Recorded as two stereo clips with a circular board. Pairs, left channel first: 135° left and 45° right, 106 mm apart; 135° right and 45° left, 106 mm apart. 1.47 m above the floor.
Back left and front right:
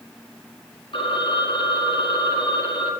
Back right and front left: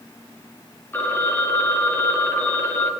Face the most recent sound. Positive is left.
turn(degrees=160)